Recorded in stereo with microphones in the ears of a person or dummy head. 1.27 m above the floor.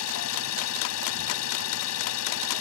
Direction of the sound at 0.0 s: 85° left.